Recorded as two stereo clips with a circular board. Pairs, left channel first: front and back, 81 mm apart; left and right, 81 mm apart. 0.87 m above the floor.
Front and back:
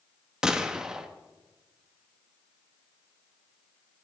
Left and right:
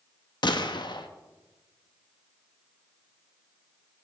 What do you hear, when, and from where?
0.4 s a gunshot: 100° left, 0.8 m